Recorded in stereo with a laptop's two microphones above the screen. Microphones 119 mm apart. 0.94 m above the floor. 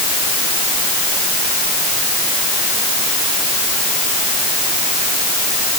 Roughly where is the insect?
No insect in this recording.